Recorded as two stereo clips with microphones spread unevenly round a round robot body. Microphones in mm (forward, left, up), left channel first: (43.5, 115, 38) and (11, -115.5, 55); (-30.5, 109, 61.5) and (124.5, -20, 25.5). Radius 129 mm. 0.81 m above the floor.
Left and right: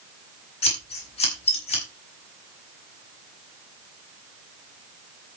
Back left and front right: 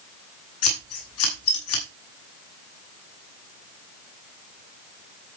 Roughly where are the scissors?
Behind left.